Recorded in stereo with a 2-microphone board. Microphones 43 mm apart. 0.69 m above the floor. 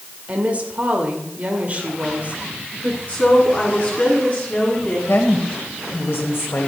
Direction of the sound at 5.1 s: 65° left (ahead or behind).